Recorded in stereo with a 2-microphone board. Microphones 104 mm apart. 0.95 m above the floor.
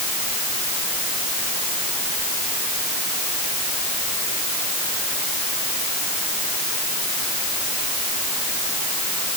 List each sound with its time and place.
Only background noise.